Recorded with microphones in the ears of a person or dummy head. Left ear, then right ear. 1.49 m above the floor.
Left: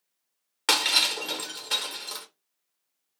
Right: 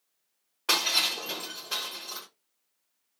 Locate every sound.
0.7 s breaking glass: 45° left (ahead or behind), 0.8 m